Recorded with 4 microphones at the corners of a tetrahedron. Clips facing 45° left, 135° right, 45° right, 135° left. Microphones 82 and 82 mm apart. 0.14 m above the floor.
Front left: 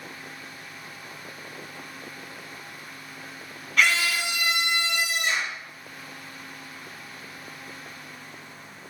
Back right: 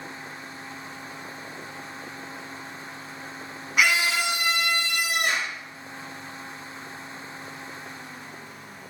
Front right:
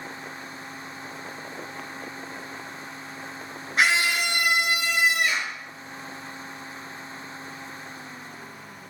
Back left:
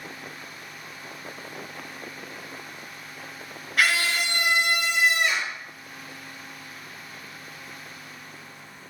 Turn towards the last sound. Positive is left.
turn(degrees=-135)